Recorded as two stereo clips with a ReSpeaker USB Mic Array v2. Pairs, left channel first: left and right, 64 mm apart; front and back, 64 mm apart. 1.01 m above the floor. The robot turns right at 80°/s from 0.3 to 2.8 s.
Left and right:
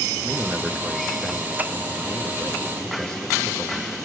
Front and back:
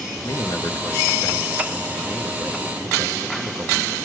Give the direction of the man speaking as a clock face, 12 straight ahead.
1 o'clock.